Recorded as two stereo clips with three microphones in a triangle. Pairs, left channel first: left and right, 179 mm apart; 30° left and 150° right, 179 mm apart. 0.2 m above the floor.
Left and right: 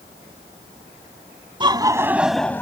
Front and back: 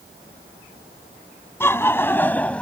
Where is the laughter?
40° right; by 2.6 s 90° left.